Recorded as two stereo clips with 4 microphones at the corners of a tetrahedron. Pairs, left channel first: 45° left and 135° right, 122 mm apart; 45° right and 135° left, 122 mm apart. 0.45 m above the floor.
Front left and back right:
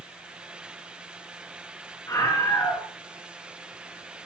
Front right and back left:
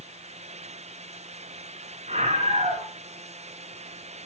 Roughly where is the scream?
Left.